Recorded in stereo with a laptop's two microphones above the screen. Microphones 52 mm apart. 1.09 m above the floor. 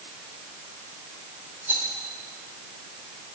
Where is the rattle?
45° right (ahead or behind), 4 m.